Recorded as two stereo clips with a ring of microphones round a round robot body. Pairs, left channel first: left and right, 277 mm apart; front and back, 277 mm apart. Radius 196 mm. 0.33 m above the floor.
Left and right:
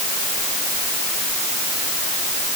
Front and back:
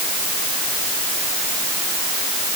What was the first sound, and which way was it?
Only background noise.